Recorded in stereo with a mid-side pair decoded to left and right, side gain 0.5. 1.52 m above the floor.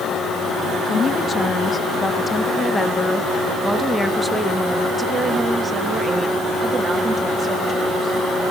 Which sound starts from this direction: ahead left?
A woman speaking, at 0.9 s.